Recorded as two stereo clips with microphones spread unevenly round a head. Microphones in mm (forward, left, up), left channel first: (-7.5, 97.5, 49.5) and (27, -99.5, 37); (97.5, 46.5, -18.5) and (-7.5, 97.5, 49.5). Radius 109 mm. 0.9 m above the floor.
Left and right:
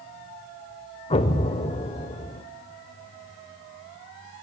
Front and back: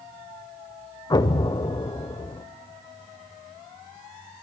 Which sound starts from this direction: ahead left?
An explosion, at 1.1 s.